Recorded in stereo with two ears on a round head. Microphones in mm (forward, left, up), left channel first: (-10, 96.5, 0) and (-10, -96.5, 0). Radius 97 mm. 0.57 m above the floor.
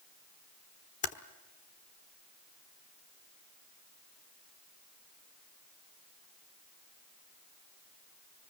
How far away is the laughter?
I don't hear laughter.